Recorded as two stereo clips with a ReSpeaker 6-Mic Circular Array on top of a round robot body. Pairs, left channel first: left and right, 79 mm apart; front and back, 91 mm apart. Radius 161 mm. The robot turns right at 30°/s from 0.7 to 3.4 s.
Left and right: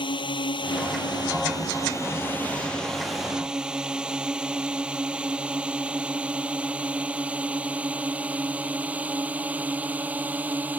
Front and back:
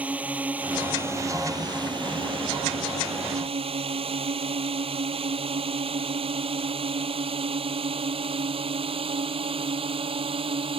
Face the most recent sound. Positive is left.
turn(degrees=-160)